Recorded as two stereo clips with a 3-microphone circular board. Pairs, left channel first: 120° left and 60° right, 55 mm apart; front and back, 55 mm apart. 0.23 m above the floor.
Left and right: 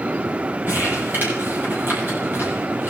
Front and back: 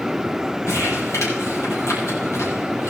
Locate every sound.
0.7 s crumpling: 15° right, 9 m